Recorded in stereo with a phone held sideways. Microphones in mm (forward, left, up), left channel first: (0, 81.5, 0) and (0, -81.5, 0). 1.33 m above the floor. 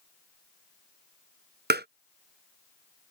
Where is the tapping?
80° right.